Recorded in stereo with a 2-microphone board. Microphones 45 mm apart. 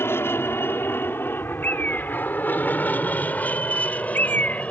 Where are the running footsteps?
I don't hear running footsteps.